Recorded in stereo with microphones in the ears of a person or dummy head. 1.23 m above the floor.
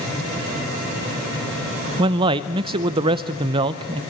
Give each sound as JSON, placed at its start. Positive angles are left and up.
{"t": 2.0, "sound": "a man speaking", "side_deg": -35, "distance_m": 0.7}